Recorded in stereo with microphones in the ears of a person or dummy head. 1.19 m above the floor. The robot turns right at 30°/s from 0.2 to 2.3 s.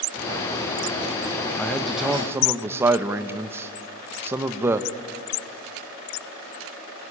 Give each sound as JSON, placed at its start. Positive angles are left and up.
{"t": 1.6, "sound": "a man speaking", "side_deg": 5, "distance_m": 1.0}